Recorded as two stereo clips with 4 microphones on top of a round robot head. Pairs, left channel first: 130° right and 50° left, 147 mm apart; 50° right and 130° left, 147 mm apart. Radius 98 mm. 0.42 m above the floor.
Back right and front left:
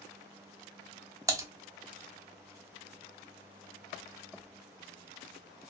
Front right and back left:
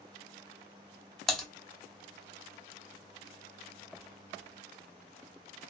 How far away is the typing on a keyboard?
About 0.9 m.